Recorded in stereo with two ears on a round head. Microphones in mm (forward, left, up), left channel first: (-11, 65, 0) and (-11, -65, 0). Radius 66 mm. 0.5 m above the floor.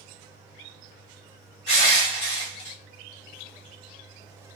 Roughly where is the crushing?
Left.